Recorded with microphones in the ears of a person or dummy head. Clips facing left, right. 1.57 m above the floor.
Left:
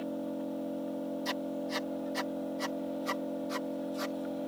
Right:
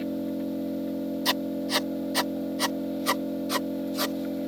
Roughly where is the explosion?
I don't hear an explosion.